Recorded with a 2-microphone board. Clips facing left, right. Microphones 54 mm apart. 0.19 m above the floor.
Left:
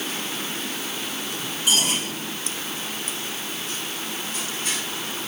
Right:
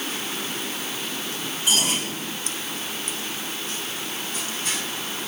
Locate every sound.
Only background noise.